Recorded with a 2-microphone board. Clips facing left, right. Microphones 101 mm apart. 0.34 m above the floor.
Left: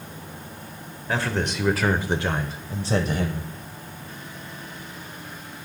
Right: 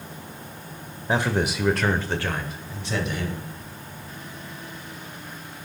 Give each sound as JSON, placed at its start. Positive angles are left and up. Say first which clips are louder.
{"t": 1.1, "sound": "a man speaking", "louder": "right 2 dB", "side_deg": -20, "distance_m": 0.9}